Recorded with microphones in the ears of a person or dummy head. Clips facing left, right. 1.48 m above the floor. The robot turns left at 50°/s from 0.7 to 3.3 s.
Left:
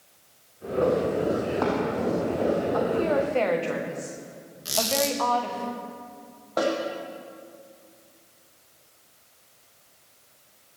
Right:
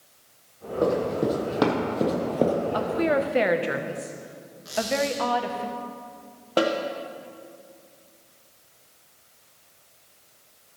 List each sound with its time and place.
0.8 s running footsteps: 25° right (ahead or behind), 4.5 m; by 2.6 s 55° right (ahead or behind), 2.5 m
2.7 s a woman speaking: 40° right (ahead or behind), 1.0 m; by 5.7 s 15° right (ahead or behind), 1.0 m
4.7 s a squeak: 45° left (ahead or behind), 1.2 m
6.6 s a snare drum: 35° right (ahead or behind), 1.4 m